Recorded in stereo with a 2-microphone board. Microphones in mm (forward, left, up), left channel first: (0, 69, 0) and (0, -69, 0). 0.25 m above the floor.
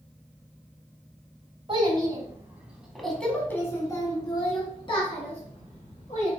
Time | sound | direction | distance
1.7 | a child speaking | 35° right (ahead or behind) | 1.3 m